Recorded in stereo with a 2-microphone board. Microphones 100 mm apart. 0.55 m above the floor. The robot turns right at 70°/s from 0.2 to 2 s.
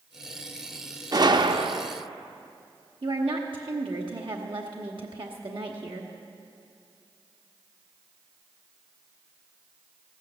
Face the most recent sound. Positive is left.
turn(degrees=-55)  # may be behind; listen again after turning